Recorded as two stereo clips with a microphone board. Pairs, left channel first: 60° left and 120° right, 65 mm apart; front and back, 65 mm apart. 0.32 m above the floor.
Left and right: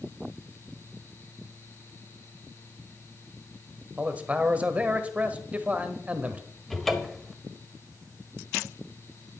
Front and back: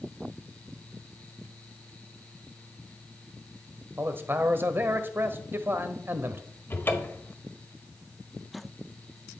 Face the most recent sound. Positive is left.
turn(degrees=-25)